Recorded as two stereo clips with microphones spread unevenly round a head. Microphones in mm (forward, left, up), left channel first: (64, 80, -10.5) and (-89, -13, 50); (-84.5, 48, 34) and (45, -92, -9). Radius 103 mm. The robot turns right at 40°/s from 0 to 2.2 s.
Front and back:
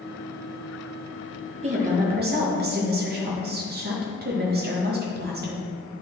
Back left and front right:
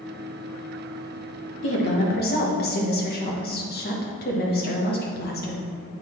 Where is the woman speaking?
150° left, 1.2 m; by 5.7 s 170° left, 1.2 m.